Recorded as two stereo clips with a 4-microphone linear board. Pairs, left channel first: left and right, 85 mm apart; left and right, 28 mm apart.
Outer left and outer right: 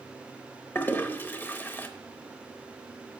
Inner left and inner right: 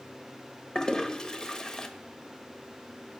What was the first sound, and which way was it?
A toilet flushing, 25° left (ahead or behind).